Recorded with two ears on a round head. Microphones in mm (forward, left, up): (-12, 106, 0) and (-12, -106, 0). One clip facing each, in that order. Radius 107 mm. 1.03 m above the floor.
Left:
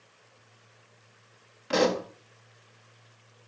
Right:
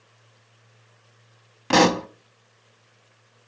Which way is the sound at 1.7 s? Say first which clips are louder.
Right 5 dB; 70° right (ahead or behind).